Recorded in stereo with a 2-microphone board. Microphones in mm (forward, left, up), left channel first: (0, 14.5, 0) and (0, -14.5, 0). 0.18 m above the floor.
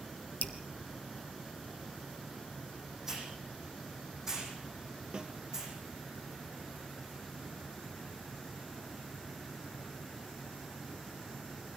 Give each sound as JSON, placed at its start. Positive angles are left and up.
{"t": 0.4, "sound": "dripping", "side_deg": 80, "distance_m": 1.4}
{"t": 3.1, "sound": "a hiss", "side_deg": -20, "distance_m": 8.0}
{"t": 5.1, "sound": "a snare drum", "side_deg": -30, "distance_m": 1.4}